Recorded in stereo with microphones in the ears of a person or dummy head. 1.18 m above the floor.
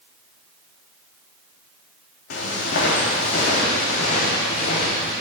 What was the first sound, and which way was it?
Footsteps, 55° left (ahead or behind).